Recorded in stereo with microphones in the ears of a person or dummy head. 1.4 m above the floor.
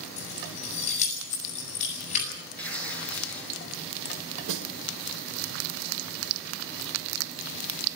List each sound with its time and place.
0.2 s keys jangling: 40° left (ahead or behind), 8 m
2.6 s tearing paper: 5° left (ahead or behind), 9.5 m
4.5 s a snare drum: 75° right (ahead or behind), 2.5 m